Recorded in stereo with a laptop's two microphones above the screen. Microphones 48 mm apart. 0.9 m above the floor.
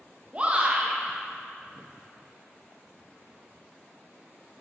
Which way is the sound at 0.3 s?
25° right (ahead or behind).